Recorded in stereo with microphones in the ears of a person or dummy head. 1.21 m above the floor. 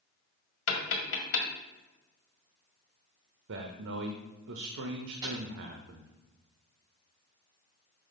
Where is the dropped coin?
20° right (ahead or behind), 3.5 m.